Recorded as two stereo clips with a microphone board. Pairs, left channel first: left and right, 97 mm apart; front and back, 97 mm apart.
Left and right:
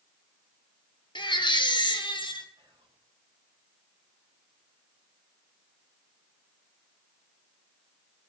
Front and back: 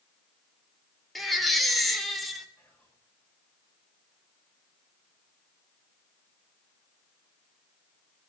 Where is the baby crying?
90° left, 2.0 m.